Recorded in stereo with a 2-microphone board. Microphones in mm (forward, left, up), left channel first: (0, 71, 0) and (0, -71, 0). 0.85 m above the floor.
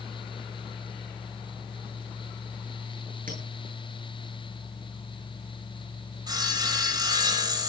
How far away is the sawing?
About 4 m.